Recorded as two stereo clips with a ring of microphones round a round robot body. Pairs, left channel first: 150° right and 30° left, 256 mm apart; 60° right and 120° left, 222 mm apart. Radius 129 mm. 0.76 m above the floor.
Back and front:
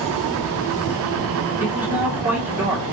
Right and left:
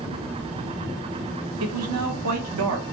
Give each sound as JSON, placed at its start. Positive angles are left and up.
{"t": 1.6, "sound": "a man speaking", "azimuth_deg": 115, "distance_m": 1.5}